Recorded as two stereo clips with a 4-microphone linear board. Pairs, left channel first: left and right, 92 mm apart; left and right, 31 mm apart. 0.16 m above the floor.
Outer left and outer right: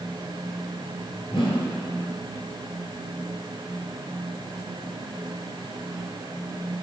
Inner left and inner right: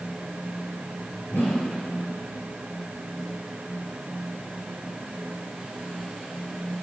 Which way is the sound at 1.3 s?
65° left (ahead or behind).